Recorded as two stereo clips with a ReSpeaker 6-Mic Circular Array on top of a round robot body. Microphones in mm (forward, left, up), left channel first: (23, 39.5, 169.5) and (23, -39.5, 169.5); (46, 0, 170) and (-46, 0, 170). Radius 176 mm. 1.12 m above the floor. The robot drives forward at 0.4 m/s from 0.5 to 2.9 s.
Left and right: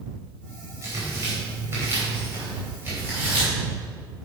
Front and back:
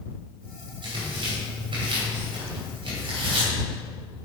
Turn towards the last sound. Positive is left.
turn(degrees=-155)